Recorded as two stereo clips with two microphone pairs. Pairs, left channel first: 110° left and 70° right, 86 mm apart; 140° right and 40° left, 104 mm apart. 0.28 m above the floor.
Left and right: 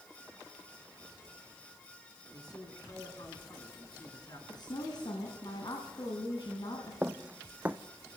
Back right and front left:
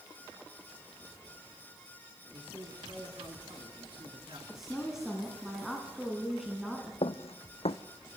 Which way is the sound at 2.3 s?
75° left.